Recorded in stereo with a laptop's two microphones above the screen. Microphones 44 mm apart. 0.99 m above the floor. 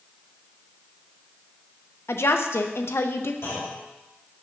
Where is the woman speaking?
75° left (ahead or behind), 0.5 m.